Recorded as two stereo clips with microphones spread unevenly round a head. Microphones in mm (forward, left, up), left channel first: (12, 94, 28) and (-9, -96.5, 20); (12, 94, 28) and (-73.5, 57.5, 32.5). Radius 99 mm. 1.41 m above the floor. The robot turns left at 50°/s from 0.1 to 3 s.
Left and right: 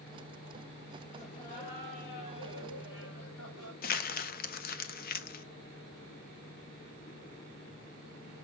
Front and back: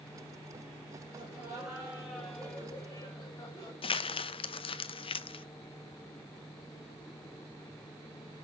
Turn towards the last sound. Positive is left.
turn(degrees=45)